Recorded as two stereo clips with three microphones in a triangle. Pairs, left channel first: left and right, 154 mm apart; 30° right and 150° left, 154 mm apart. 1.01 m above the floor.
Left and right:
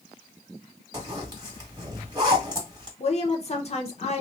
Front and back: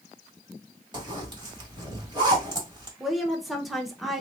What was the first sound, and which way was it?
A zipper, 155° right.